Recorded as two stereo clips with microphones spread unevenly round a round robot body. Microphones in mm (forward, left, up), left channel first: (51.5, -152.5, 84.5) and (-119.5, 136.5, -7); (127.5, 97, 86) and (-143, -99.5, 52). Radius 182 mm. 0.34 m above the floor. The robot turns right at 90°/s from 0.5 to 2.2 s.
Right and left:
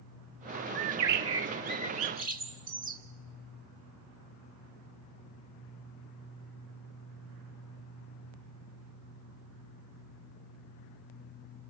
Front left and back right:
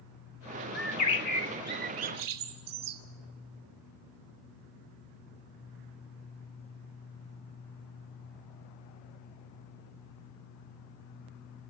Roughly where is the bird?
Ahead left.